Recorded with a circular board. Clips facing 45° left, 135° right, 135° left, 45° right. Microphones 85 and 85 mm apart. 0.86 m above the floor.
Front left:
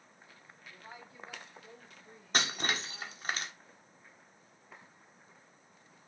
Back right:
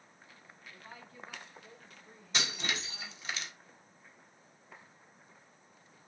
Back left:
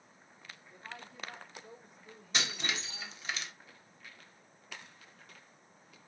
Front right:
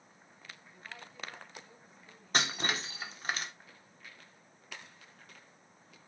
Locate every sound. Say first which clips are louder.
0.7 s a woman speaking: front left 1 dB, back left 2 dB; 110° left, 3 m; by 3.2 s 140° left, 3 m
2.3 s breaking glass: front left 3 dB, front right 4 dB; straight ahead, 1.4 m